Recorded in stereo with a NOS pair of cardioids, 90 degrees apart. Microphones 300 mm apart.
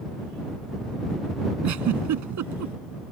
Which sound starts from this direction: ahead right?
A giggle, at 1.6 s.